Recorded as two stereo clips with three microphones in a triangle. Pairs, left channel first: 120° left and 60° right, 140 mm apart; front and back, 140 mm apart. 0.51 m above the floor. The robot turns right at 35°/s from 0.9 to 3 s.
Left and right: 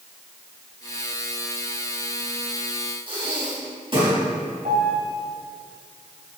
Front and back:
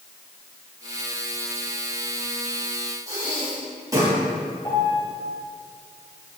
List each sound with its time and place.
3.1 s breathing: 115° right, 3 m
4.7 s a piano: 60° right, 2 m